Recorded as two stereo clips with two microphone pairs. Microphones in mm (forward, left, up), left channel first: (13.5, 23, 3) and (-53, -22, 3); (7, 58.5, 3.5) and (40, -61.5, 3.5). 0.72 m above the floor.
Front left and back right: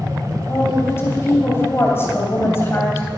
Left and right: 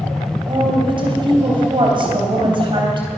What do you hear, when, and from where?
0.5 s a woman speaking: 25° right, 3.5 m